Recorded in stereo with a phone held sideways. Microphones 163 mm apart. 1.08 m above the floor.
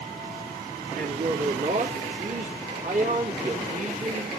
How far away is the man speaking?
About 3 m.